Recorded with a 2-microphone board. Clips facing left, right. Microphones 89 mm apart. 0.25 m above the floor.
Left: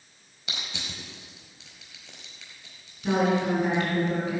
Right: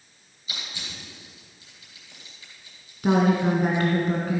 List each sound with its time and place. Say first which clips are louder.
0.5 s crushing: left 1 dB; 75° left (ahead or behind), 4 m
3.0 s a woman speaking: right 3 dB; 50° right (ahead or behind), 3 m